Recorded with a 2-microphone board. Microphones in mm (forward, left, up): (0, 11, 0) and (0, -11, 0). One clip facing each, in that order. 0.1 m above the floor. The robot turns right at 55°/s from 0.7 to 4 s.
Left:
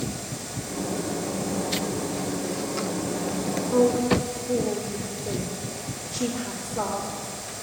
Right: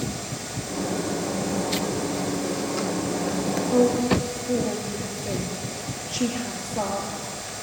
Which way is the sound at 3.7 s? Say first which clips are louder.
Even; 55° right (ahead or behind).